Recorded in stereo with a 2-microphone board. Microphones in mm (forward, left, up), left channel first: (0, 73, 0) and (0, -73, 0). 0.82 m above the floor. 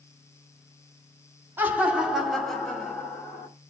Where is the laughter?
15° right (ahead or behind), 1.8 m; by 3.5 s 10° left (ahead or behind), 3 m.